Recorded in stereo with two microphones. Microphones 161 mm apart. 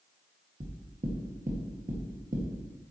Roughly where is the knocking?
Right.